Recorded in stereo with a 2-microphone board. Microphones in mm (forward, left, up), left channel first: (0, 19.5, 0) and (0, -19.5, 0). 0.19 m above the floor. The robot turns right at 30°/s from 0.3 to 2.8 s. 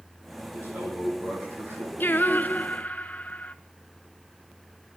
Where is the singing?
60° left (ahead or behind), 0.6 m; by 3.5 s 45° left (ahead or behind), 0.6 m.